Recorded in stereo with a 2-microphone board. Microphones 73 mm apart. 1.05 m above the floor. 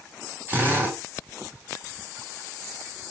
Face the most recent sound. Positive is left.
turn(degrees=-25)  # may be behind; listen again after turning